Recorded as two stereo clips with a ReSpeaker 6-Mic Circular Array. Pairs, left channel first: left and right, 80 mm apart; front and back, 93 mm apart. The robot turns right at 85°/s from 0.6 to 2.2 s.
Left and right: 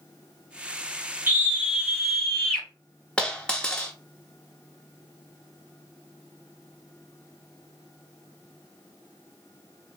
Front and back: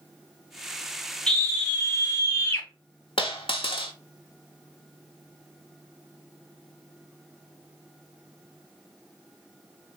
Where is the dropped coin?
10° left, 0.7 m.